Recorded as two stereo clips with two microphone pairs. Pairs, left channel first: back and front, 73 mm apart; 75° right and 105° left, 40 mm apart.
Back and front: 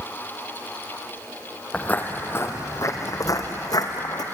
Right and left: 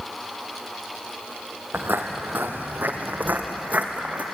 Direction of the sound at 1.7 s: 110° left.